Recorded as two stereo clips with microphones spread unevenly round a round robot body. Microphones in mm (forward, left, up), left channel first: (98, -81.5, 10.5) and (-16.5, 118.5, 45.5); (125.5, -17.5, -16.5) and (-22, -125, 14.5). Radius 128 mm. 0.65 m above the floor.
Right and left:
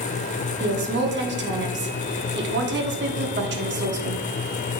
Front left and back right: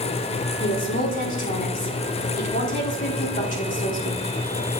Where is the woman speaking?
80° left, 1.4 m.